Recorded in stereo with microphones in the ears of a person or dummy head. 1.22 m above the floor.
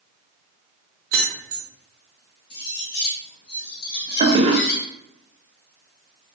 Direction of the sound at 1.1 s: 50° right (ahead or behind).